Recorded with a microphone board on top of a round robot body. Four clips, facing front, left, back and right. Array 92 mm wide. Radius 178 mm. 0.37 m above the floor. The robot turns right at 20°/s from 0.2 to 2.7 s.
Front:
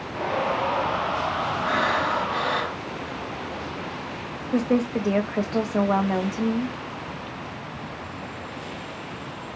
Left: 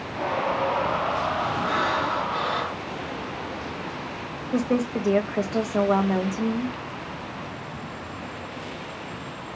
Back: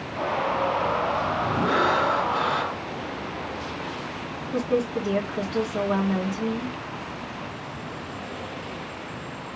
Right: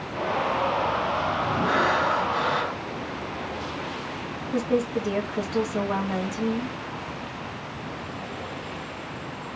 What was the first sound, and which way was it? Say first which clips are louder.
Breathing: right 4 dB, back 2 dB; 25° right.